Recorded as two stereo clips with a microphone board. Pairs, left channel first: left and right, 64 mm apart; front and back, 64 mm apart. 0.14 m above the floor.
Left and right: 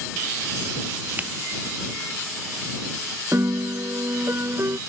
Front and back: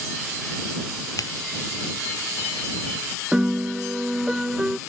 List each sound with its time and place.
1.2 s scissors: 20° right
3.3 s a piano: 105° right